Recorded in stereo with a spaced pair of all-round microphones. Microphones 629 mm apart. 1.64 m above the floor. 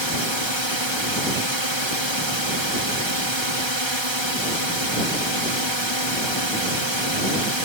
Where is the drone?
45° right (ahead or behind).